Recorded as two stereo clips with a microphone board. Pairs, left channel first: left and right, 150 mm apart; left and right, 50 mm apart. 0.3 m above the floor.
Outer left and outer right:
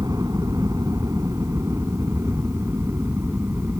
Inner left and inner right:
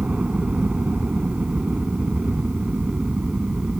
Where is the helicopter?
25° right (ahead or behind); by 3.8 s 15° right (ahead or behind).